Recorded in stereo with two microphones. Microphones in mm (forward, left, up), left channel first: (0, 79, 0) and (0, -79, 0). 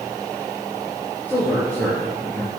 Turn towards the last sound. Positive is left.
turn(degrees=10)  # may be behind; listen again after turning